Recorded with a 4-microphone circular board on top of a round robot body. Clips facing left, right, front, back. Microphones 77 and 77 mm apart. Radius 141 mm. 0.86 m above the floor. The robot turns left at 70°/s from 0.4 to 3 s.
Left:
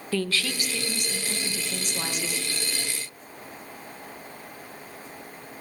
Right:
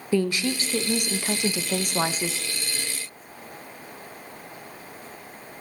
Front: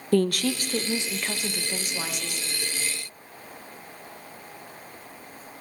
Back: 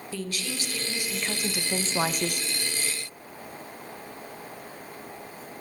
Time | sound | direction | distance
0.1 | a woman speaking | 20° right | 0.9 m